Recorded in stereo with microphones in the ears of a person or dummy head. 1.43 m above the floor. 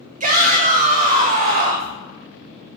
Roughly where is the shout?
Right.